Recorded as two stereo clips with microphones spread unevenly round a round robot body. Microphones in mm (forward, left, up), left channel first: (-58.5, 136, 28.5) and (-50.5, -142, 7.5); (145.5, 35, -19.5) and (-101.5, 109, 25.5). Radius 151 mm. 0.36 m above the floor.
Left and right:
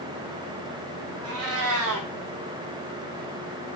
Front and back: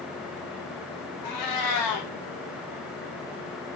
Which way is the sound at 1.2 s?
40° right.